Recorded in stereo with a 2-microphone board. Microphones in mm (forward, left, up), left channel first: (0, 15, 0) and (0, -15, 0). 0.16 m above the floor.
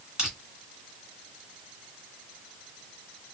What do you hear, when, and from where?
0.2 s crushing: 30° right (ahead or behind), 2 m